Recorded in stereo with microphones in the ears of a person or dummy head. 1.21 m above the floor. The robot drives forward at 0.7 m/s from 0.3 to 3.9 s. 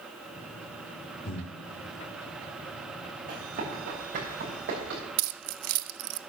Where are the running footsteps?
50° right (ahead or behind), 6 m; by 5.0 s 60° right (ahead or behind), 6.5 m.